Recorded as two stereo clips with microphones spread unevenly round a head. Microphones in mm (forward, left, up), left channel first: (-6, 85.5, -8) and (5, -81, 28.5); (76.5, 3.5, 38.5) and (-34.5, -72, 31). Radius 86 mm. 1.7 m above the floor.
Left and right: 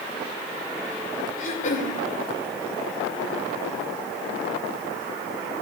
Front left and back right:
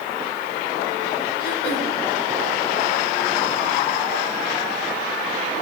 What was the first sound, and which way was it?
Throat clearing, 45° left.